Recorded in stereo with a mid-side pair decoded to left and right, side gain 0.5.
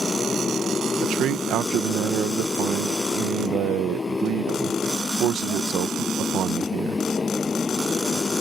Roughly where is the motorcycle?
Ahead left.